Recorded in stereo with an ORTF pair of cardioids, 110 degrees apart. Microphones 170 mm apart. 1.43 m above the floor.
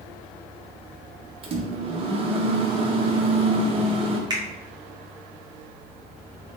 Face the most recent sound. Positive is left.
turn(degrees=-25)